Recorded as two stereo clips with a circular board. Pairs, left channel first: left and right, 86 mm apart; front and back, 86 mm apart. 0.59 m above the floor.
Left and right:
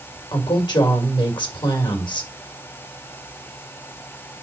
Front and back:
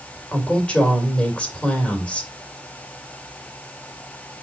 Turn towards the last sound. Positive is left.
turn(degrees=75)